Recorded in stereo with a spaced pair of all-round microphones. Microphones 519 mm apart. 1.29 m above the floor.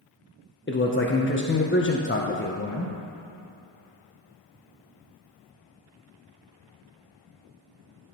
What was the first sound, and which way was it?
A man speaking, 25° left (ahead or behind).